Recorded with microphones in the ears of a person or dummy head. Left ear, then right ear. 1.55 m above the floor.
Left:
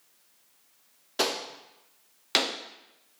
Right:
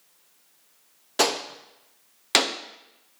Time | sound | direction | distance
1.2 | a gunshot | 10° right (ahead or behind) | 0.6 m